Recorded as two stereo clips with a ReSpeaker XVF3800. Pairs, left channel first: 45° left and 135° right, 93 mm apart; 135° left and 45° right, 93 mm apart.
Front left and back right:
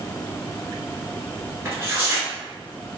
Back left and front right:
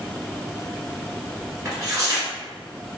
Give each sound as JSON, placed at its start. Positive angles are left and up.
{"t": 1.6, "sound": "tearing paper", "azimuth_deg": -90, "distance_m": 1.3}